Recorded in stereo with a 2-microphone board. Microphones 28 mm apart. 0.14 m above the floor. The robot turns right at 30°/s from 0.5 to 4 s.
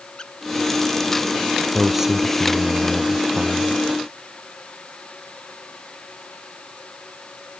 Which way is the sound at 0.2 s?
20° left (ahead or behind).